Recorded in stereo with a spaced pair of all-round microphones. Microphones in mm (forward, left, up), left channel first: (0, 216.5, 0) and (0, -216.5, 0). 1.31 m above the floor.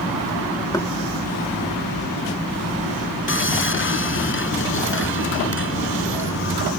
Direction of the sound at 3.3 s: 30° left (ahead or behind).